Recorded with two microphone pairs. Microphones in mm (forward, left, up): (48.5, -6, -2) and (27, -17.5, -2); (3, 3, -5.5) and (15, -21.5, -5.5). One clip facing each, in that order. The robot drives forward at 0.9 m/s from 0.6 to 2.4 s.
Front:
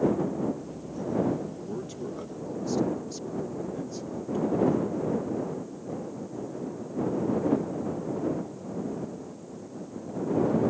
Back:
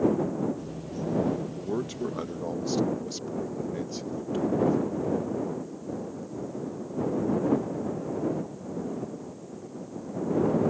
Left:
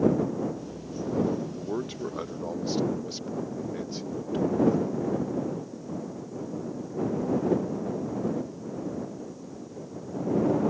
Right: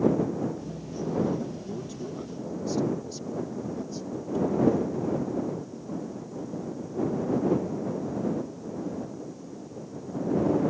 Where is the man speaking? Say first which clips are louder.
Back 5 dB, left 4 dB; 150° left; by 5.2 s 160° left.